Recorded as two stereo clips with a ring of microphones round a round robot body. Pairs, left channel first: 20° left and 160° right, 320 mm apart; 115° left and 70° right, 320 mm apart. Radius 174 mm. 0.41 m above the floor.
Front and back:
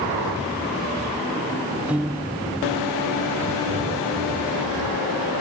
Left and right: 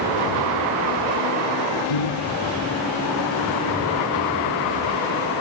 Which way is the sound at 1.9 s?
115° left.